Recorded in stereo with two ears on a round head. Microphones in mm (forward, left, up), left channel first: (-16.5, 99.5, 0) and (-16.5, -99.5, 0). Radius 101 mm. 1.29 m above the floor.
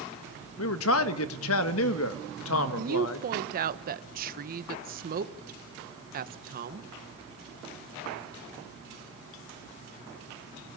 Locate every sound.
0.6 s a man speaking: 65° left (ahead or behind), 1.5 m
2.8 s a woman speaking: 40° right (ahead or behind), 1.2 m